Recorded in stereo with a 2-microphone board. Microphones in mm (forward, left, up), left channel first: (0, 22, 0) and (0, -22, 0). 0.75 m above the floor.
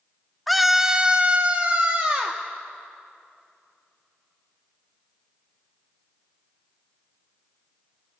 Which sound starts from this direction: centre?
A scream, at 0.5 s.